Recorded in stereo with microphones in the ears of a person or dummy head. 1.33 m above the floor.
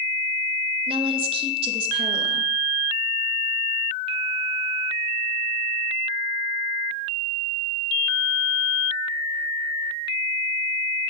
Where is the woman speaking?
30° right (ahead or behind), 1.6 m.